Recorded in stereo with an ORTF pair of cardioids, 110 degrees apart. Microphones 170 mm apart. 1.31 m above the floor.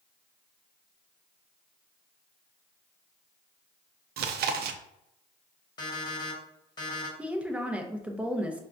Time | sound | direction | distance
4.2 | chewing | 65° right | 0.5 m
5.8 | an alarm clock | 30° left | 1.5 m
7.2 | a woman speaking | 5° right | 0.8 m